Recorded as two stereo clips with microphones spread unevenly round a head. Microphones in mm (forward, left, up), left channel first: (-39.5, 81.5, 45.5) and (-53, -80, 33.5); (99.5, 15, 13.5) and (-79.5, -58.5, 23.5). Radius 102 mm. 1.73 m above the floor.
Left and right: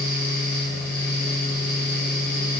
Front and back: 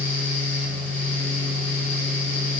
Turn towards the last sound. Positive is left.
turn(degrees=105)